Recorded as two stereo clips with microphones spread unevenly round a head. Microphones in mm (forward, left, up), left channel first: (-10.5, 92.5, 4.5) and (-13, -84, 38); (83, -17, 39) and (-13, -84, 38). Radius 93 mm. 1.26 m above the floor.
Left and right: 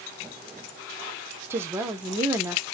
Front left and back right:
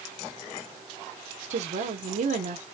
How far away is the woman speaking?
About 0.9 m.